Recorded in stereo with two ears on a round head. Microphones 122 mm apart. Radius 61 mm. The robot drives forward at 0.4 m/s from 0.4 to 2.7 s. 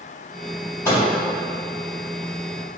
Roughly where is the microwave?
Centre.